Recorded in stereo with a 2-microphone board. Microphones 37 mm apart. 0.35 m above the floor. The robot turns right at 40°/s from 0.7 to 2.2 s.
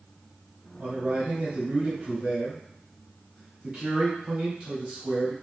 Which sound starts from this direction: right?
A man speaking, at 0.8 s.